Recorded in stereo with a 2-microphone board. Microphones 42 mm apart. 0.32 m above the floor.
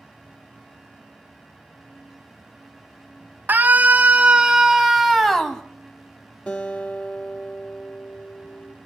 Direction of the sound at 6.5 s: 35° left (ahead or behind).